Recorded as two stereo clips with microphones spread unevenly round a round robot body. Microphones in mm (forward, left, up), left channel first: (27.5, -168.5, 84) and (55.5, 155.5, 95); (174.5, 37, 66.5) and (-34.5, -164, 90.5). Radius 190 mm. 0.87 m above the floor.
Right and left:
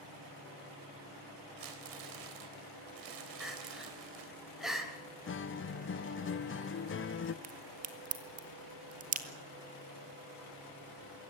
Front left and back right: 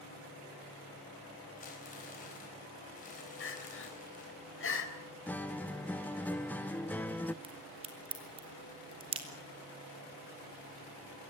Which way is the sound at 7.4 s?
150° left.